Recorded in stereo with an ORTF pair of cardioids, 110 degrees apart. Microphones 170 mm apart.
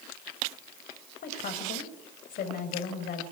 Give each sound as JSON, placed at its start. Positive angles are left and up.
{"t": 1.2, "sound": "a woman speaking", "azimuth_deg": 60, "distance_m": 5.0}